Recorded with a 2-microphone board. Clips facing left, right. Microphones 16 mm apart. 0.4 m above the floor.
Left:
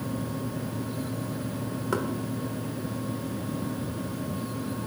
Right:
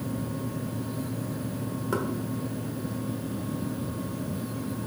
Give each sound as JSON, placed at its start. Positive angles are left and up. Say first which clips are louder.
{"t": 1.9, "sound": "knocking", "louder": "left 1 dB", "side_deg": 10, "distance_m": 1.0}